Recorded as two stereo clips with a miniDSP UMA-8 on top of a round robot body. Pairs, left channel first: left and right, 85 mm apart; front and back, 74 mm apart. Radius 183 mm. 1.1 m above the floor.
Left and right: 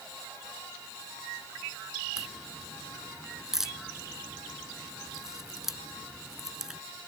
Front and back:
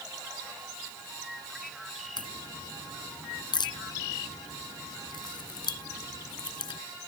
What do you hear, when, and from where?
2.2 s a crack: 5° right